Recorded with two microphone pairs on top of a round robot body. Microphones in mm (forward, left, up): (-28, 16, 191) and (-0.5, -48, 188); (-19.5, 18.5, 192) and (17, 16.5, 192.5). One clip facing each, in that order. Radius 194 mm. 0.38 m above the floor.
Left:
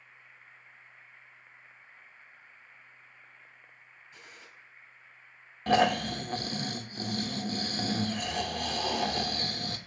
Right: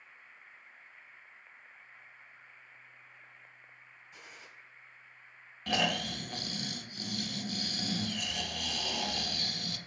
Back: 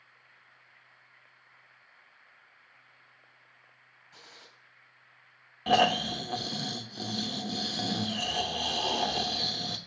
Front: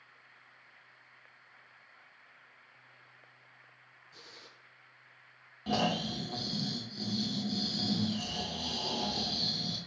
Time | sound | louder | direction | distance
4.1 | a gunshot | even, back 1 dB | 145° right | 1.9 m
5.7 | snoring | left 8 dB, back 7 dB | 160° left | 0.8 m